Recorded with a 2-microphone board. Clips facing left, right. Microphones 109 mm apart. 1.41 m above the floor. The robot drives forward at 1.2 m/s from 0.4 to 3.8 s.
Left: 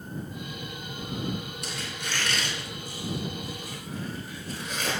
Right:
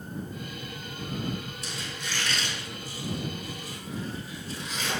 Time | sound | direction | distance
1.6 | a squeak | 60° left (ahead or behind) | 9.5 m